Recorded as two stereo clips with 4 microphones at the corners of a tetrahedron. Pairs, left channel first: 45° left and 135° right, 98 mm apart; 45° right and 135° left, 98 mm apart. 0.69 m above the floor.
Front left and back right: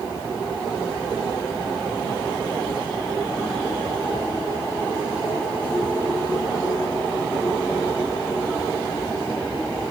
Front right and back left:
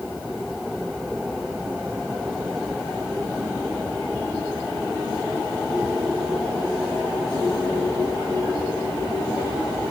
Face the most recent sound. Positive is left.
No sound to turn to.